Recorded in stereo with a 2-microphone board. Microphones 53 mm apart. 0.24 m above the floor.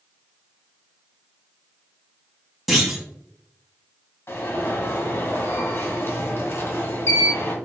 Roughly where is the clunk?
Centre.